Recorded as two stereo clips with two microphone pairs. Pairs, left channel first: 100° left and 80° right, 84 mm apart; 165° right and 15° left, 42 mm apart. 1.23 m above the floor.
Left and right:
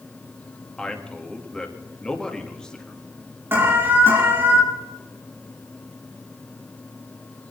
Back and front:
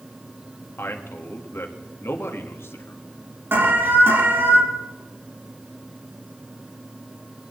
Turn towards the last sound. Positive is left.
turn(degrees=-15)